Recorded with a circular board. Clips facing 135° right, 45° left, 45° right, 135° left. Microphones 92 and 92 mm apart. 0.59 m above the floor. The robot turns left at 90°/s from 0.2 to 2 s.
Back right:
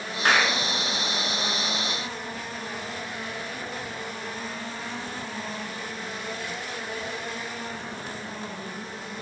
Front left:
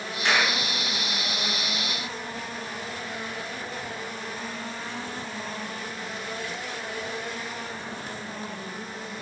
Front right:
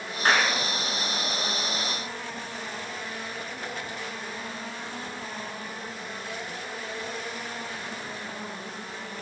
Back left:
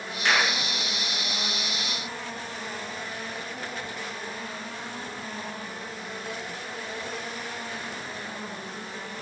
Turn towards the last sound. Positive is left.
turn(degrees=110)